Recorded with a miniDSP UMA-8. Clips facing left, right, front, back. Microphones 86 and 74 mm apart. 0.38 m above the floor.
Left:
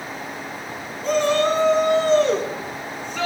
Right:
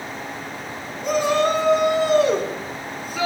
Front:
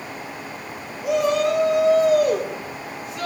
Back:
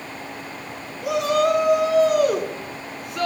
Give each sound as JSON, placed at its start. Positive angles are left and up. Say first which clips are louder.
{"t": 1.0, "sound": "a shout", "louder": "even, even", "azimuth_deg": -170, "distance_m": 5.0}